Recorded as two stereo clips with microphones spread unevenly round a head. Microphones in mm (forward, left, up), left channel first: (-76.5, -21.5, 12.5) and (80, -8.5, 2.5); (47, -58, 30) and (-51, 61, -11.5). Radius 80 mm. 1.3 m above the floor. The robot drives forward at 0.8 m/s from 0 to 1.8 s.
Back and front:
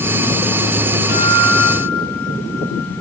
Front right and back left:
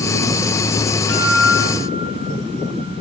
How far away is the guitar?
About 2.5 m.